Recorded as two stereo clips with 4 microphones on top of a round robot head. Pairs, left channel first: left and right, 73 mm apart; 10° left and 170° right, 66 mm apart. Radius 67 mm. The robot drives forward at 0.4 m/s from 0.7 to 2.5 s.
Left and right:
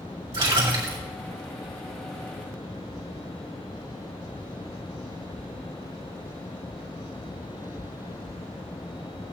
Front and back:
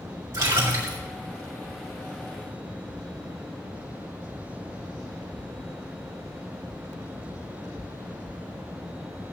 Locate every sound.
0.3 s a splash: 115° right, 3.5 m